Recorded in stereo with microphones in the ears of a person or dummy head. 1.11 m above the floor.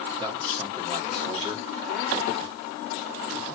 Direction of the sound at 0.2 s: 25° right (ahead or behind).